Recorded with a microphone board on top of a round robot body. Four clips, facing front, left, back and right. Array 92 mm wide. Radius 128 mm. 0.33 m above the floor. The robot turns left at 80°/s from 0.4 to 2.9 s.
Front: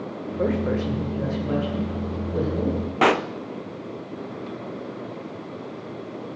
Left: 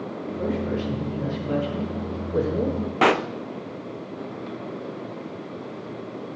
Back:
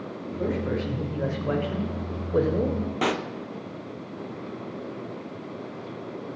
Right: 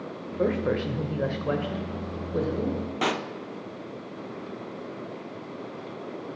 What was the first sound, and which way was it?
A man speaking, 40° right.